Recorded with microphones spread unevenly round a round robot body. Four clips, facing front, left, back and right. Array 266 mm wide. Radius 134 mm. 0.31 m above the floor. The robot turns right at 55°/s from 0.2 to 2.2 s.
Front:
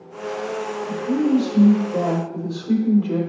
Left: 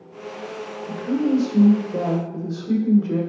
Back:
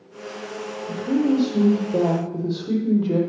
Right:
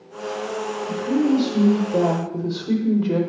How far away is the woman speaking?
About 1.2 m.